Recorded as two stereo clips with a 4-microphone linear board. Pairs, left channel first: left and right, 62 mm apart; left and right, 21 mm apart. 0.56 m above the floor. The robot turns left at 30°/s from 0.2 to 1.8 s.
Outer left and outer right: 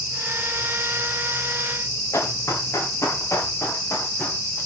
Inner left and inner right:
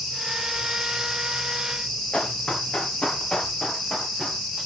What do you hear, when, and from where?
2.1 s running footsteps: 55° left (ahead or behind), 5.5 m; by 4.4 s 40° left (ahead or behind), 7.5 m